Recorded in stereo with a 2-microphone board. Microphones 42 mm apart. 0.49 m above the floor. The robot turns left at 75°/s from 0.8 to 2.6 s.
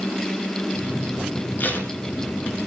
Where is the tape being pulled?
50° left (ahead or behind), 2.5 m; by 1.9 s 25° left (ahead or behind), 2.5 m.